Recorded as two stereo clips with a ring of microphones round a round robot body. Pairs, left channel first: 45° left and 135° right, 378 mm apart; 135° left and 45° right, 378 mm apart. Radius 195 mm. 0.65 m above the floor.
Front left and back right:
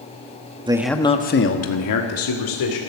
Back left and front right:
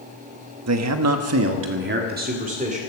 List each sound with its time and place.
0.7 s a man speaking: 65° right, 1.2 m; by 2.8 s 25° left, 2.5 m